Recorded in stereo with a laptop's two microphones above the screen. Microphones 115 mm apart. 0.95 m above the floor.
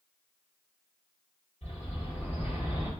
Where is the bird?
85° left, 1.8 m.